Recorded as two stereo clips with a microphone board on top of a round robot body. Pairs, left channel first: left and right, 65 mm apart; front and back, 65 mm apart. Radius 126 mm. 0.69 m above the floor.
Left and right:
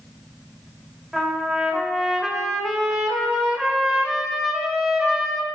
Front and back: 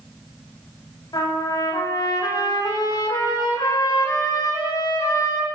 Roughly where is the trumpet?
Ahead.